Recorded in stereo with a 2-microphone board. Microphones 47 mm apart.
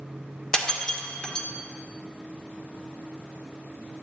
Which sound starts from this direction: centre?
Breaking glass, at 0.5 s.